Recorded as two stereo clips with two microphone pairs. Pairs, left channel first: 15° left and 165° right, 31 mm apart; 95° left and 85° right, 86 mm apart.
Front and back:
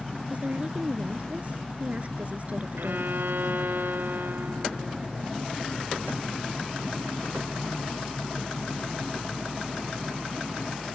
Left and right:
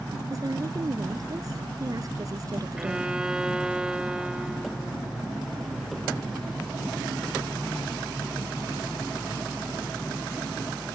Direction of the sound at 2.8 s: 165° right.